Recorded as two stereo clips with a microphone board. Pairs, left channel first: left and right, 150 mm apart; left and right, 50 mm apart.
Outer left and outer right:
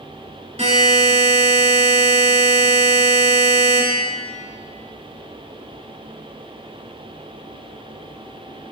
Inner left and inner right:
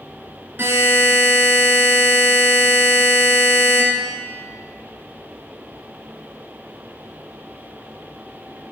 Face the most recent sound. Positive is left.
turn(degrees=-45)  # may be behind; listen again after turning